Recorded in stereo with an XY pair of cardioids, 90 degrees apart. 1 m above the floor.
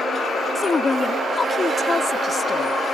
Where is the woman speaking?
35° left.